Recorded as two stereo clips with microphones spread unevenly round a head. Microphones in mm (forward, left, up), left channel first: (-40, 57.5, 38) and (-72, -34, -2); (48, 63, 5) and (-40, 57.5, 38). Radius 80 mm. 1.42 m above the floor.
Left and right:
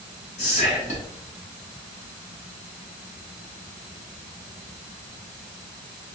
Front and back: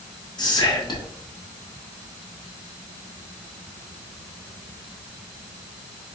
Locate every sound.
0.4 s whispering: 45° left, 1.7 m